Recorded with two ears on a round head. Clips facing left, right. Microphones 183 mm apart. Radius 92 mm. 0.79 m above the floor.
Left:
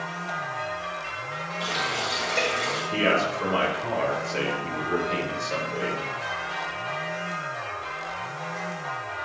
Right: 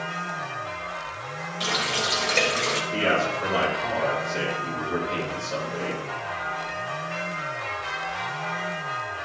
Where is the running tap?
35° right (ahead or behind), 2 m.